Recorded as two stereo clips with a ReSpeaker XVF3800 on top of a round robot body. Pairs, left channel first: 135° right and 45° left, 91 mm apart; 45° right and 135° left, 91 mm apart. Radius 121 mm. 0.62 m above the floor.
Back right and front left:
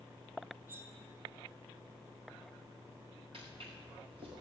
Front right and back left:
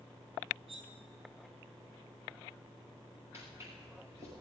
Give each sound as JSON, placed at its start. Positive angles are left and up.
{"t": 0.7, "sound": "cutlery clinking", "azimuth_deg": 115, "distance_m": 1.7}
{"t": 3.3, "sound": "footsteps", "azimuth_deg": 70, "distance_m": 6.5}